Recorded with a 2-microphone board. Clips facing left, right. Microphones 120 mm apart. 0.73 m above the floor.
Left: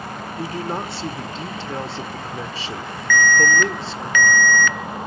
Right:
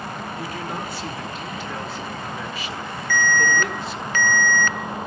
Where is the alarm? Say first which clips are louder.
Left 4 dB; 35° right (ahead or behind), 0.5 m.